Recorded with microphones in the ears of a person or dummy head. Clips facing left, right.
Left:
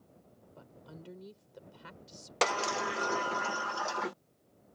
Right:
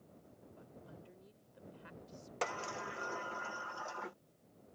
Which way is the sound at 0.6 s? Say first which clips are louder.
Left 5 dB; 90° left.